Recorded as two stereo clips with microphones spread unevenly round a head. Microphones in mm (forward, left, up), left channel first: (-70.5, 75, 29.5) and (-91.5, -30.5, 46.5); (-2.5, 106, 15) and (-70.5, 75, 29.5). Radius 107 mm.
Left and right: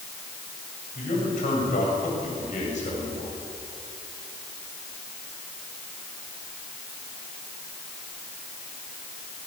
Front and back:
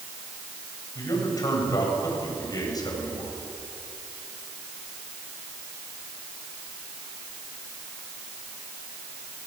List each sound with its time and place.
0.9 s a man speaking: 60° left, 7.5 m